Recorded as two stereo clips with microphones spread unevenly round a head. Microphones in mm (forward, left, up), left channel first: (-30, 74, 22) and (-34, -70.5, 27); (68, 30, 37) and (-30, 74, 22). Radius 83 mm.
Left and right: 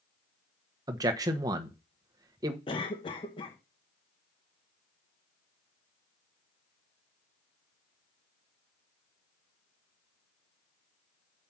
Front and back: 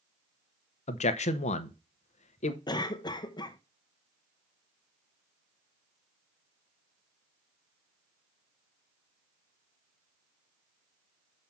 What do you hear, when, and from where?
0.9 s a man speaking: 25° right, 1.0 m
2.7 s a cough: 30° left, 0.8 m